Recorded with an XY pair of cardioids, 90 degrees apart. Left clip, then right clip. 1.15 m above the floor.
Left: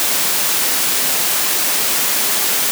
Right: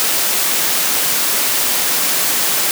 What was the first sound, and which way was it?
Only background noise.